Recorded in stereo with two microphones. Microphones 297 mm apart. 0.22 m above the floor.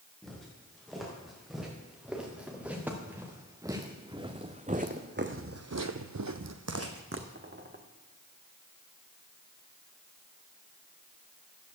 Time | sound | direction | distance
0.2 | footsteps | centre (ahead or behind) | 4 m